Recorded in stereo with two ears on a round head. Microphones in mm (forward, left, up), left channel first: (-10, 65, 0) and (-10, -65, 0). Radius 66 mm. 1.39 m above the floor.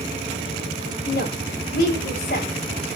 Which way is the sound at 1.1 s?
60° left (ahead or behind).